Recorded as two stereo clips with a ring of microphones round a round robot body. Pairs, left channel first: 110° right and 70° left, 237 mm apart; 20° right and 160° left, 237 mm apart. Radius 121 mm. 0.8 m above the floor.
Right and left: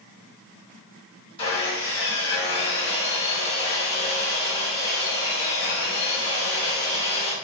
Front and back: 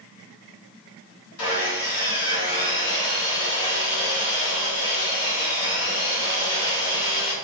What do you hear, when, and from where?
1.4 s sawing: 45° right, 2 m